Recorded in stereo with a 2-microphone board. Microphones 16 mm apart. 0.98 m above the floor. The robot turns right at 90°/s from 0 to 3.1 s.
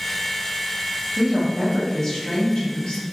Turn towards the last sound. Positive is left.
turn(degrees=120)